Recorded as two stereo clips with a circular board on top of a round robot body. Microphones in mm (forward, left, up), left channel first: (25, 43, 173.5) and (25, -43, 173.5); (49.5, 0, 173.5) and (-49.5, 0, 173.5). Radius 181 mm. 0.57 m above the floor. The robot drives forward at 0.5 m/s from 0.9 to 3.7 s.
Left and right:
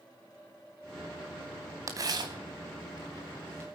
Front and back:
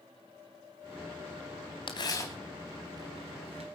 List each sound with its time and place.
1.9 s tearing paper: 40° right, 0.6 m; by 3.7 s 155° right, 0.7 m